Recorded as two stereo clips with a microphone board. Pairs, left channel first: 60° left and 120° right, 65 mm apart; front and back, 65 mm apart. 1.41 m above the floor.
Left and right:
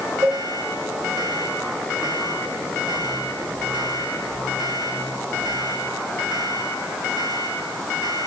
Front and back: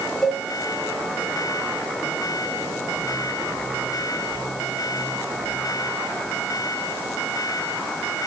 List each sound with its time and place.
0.2 s a cowbell: 85° right, 3 m